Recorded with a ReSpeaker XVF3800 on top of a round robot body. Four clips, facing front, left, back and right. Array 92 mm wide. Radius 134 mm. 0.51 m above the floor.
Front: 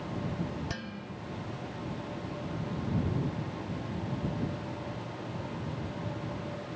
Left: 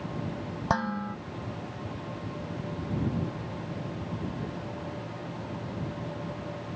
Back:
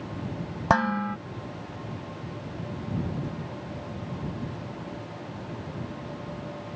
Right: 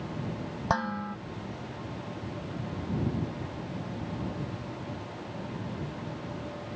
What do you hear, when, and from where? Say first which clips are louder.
0.7 s dishes clattering: left 1 dB, back 17 dB; straight behind